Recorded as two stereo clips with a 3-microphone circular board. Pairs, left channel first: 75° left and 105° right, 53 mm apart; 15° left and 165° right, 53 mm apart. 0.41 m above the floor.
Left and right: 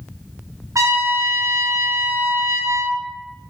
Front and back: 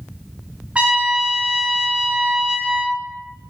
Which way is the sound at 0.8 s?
95° right.